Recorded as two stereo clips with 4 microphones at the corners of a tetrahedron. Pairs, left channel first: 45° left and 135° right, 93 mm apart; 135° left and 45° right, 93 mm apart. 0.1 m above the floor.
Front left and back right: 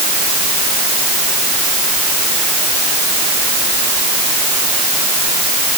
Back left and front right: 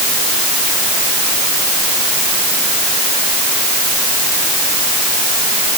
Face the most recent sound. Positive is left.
No sound to turn to.